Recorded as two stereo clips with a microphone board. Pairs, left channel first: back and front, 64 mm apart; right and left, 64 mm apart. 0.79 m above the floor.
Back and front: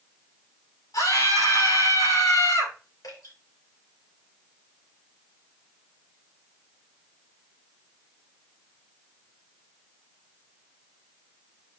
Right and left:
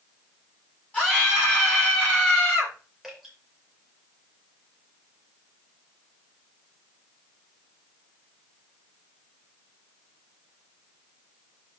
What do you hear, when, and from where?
0.9 s a scream: 160° right, 7.5 m
3.0 s dripping: straight behind, 5.5 m